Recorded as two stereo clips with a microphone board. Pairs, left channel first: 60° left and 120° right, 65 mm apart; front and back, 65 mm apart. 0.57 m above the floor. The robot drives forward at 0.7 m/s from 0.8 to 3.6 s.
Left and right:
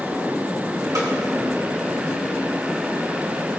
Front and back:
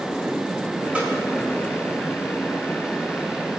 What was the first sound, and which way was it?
A snare drum, 110° right.